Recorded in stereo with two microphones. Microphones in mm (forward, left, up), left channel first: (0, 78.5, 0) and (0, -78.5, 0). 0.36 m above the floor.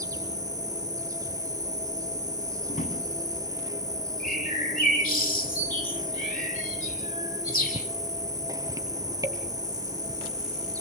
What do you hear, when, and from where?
0.0 s an insect: 20° right (ahead or behind), 2 m
2.7 s a drawer: 55° left (ahead or behind), 8 m
4.2 s a bird: 60° left (ahead or behind), 8 m